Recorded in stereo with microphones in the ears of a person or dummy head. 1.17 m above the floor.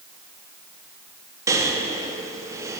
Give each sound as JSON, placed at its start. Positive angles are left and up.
{"t": 1.5, "sound": "breathing", "side_deg": -15, "distance_m": 0.5}